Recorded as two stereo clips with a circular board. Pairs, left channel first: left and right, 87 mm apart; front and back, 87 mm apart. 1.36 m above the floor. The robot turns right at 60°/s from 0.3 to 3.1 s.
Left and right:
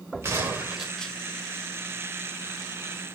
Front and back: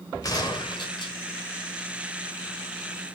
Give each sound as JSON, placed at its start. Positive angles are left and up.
{"t": 0.2, "sound": "a gunshot", "azimuth_deg": -35, "distance_m": 2.0}